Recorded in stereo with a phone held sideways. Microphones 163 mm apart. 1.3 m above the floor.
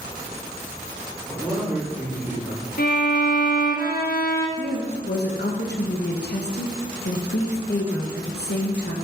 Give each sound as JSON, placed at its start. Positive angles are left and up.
{"t": 1.3, "sound": "a man speaking", "side_deg": -15, "distance_m": 3.0}
{"t": 2.8, "sound": "a violin", "side_deg": 65, "distance_m": 1.0}
{"t": 4.6, "sound": "a woman speaking", "side_deg": 85, "distance_m": 1.1}